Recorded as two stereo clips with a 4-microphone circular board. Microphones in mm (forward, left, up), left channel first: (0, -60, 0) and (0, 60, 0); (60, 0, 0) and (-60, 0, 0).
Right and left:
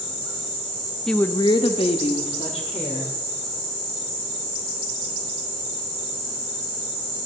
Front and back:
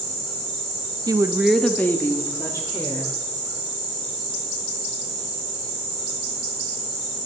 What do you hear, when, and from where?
1.1 s a woman speaking: 170° right, 0.5 m; by 3.1 s 60° right, 2 m